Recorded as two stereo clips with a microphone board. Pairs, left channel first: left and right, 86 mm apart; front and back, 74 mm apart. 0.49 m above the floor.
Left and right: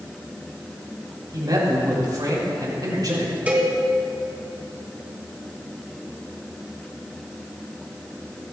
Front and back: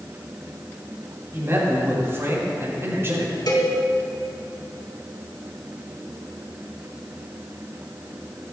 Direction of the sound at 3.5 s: 20° right.